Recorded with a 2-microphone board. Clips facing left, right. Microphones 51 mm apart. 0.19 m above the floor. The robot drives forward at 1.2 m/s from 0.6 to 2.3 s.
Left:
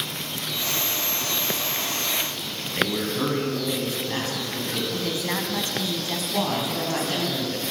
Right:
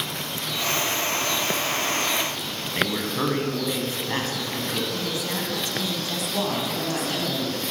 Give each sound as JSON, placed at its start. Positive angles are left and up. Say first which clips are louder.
{"t": 2.6, "sound": "a man speaking", "louder": "left 1 dB", "side_deg": -30, "distance_m": 1.5}
{"t": 4.9, "sound": "a woman speaking", "louder": "left 1 dB", "side_deg": 35, "distance_m": 1.2}
{"t": 6.3, "sound": "a woman speaking", "louder": "left 1 dB", "side_deg": 15, "distance_m": 1.6}